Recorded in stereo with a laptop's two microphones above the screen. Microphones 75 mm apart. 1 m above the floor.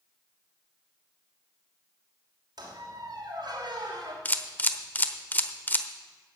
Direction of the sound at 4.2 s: 25° left (ahead or behind).